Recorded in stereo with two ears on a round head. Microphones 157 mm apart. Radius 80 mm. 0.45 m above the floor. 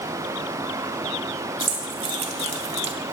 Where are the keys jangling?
35° right (ahead or behind), 2 m.